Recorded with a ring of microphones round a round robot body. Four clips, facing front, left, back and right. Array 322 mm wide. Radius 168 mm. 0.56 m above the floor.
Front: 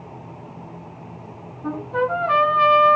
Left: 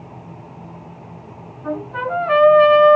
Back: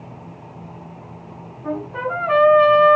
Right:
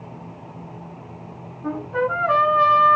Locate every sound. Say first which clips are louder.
1.6 s a trumpet: right 1 dB, front 2 dB; 20° right, 4.5 m